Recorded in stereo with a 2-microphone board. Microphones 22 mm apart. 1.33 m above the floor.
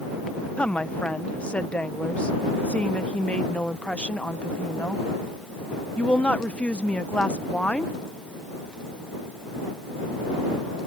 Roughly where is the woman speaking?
Left.